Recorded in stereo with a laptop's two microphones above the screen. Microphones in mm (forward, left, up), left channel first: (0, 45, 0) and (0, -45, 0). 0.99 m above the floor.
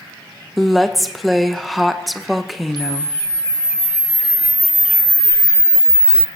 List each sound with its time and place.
0.6 s a woman speaking: centre (ahead or behind), 0.6 m
2.8 s a camera shutter: 55° right (ahead or behind), 0.6 m